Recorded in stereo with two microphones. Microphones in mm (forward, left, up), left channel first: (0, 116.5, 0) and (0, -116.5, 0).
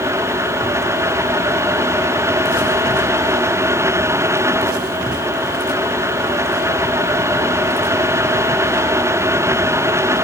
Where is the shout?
I don't hear a shout.